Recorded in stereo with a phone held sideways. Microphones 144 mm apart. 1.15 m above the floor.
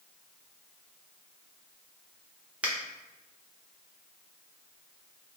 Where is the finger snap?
10° right (ahead or behind), 0.7 m.